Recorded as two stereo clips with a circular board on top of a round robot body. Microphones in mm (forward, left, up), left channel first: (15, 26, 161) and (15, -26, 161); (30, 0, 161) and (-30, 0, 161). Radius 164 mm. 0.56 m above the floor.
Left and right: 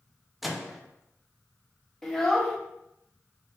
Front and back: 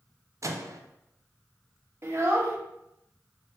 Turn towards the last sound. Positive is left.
turn(degrees=170)